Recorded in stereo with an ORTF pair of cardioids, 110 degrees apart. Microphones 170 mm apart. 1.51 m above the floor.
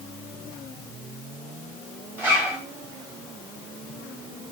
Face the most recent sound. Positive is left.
turn(degrees=-15)